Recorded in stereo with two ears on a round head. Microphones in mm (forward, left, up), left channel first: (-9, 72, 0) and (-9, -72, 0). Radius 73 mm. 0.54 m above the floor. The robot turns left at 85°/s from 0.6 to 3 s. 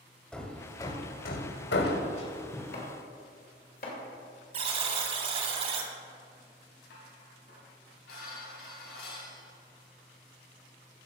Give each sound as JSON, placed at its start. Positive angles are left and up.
{"t": 0.3, "sound": "hammering", "side_deg": 5, "distance_m": 1.0}
{"t": 2.7, "sound": "chopping", "side_deg": 60, "distance_m": 2.5}
{"t": 4.5, "sound": "a buzzer", "side_deg": -40, "distance_m": 1.2}
{"t": 6.9, "sound": "dishes clattering", "side_deg": 75, "distance_m": 3.0}